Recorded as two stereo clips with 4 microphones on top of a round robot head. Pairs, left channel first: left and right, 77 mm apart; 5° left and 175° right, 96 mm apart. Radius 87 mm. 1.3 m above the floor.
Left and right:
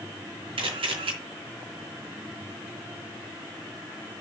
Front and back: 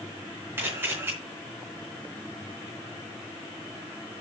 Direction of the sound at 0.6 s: 105° right.